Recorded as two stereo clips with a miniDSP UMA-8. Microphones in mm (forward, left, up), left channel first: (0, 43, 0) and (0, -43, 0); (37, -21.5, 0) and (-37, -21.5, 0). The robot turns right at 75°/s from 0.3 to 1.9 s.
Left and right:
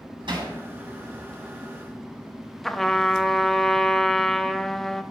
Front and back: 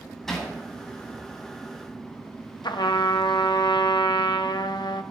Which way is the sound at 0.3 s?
90° right.